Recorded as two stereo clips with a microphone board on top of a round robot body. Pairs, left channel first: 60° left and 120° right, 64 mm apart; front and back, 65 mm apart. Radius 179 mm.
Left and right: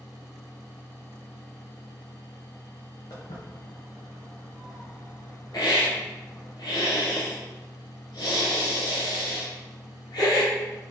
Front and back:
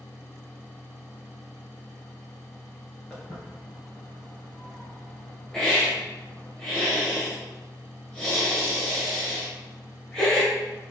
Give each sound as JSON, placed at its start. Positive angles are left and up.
{"t": 3.1, "sound": "footsteps", "azimuth_deg": 75, "distance_m": 3.0}
{"t": 5.5, "sound": "a hiss", "azimuth_deg": 80, "distance_m": 2.5}